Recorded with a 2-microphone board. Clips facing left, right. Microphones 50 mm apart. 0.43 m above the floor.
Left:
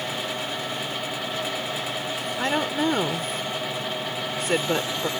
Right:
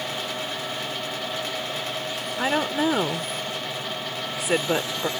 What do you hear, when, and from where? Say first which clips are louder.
2.4 s a woman speaking: right 1 dB; 5° right (ahead or behind)